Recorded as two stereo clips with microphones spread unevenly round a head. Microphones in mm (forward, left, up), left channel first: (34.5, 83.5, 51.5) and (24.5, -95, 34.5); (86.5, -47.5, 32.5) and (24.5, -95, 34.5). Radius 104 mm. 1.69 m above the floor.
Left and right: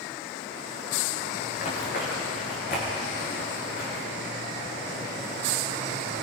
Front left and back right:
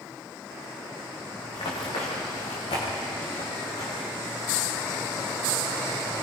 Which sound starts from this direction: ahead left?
Running footsteps, at 1.5 s.